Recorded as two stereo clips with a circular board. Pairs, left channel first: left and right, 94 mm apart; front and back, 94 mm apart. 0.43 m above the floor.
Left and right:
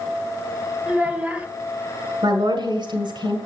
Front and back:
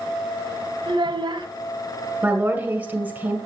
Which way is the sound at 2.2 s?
110° right.